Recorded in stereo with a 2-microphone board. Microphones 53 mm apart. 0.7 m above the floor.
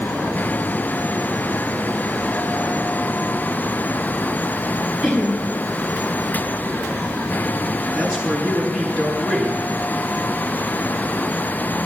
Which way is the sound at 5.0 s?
15° right (ahead or behind).